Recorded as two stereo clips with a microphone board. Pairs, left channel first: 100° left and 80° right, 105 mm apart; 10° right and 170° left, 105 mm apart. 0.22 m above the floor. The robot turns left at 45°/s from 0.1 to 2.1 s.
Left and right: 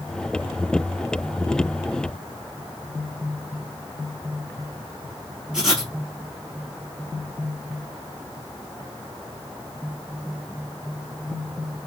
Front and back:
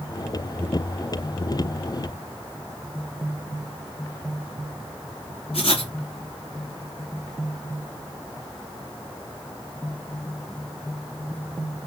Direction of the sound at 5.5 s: 5° left.